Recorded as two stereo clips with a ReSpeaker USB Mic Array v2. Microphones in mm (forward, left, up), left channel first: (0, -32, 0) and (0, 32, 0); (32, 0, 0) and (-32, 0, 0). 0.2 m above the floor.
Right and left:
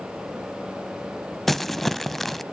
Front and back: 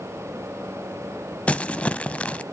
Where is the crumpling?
10° right, 0.5 m.